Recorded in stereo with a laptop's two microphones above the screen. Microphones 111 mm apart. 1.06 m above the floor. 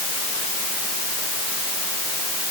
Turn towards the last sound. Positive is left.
No sound to turn to.